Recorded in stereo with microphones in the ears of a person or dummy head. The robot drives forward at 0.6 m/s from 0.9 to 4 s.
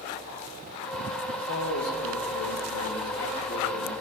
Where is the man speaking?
85° left, 1.7 m; by 3.9 s 50° left (ahead or behind), 2 m.